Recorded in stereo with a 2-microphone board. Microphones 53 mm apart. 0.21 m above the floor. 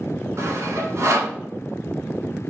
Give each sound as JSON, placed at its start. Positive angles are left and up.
{"t": 0.4, "sound": "sawing", "side_deg": -60, "distance_m": 0.9}